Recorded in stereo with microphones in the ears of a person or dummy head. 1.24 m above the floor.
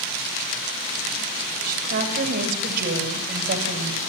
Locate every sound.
1.7 s a woman speaking: 55° right (ahead or behind), 6.5 m